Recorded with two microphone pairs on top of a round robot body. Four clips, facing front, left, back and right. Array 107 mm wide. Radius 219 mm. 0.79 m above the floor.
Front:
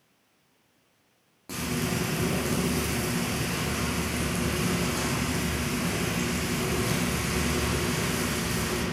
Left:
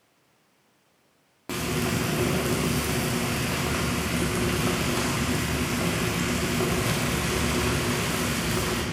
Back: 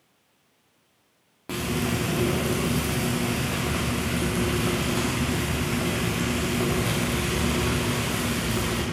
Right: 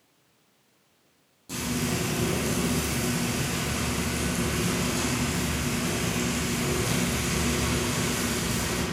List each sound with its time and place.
1.5 s frying: 120° left, 2.5 m